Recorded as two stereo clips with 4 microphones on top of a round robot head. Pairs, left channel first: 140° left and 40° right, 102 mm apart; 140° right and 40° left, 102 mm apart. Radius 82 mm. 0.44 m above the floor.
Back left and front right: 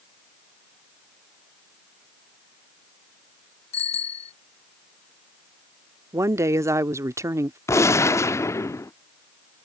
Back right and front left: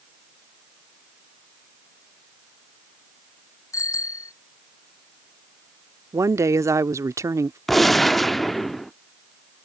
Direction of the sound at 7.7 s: 135° left.